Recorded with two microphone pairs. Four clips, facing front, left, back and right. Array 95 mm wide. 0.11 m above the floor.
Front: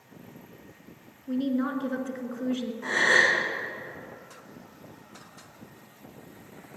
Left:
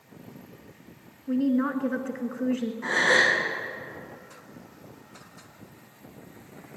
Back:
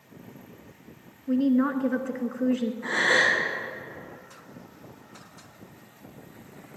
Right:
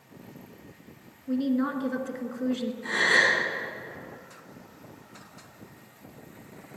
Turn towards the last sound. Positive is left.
turn(degrees=55)